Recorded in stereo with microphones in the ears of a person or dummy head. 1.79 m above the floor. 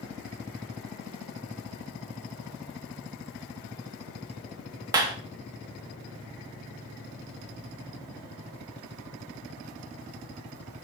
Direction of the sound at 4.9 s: 20° right (ahead or behind).